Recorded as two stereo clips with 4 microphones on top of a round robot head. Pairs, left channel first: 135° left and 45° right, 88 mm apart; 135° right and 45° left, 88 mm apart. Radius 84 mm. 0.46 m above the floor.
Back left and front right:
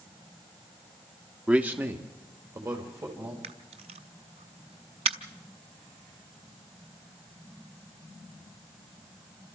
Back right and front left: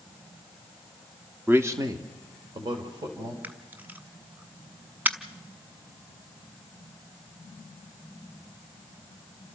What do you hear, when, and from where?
1.5 s a man speaking: 15° left, 1.2 m; by 3.3 s 10° left, 3.5 m
3.4 s a camera shutter: 30° right, 0.7 m